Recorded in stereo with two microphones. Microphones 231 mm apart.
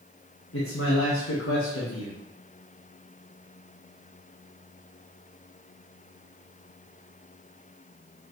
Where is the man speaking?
70° left (ahead or behind), 1.5 m.